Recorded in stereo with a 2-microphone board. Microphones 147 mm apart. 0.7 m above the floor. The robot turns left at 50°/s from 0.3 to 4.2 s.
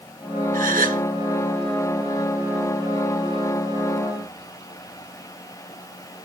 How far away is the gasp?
About 0.6 m.